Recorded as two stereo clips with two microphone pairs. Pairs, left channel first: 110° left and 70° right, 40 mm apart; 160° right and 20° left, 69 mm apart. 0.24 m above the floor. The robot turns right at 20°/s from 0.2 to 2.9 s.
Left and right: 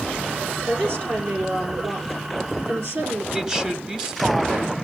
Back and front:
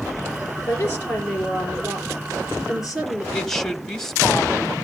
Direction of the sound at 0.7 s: 110° right.